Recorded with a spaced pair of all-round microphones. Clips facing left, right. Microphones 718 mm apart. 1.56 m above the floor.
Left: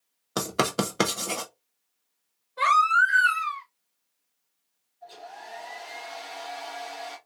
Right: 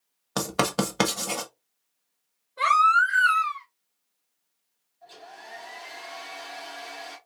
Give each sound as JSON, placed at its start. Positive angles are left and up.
{"t": 0.4, "sound": "writing", "side_deg": -30, "distance_m": 0.9}
{"t": 2.6, "sound": "a baby crying", "side_deg": 30, "distance_m": 1.8}
{"t": 5.0, "sound": "a hair dryer", "side_deg": -10, "distance_m": 2.0}